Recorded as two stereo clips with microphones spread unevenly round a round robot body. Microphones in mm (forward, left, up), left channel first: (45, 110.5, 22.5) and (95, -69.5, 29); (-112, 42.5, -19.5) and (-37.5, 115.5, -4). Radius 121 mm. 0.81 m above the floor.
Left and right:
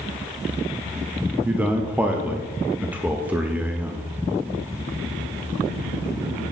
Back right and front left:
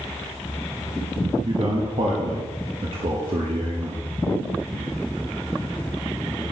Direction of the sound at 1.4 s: 5° left.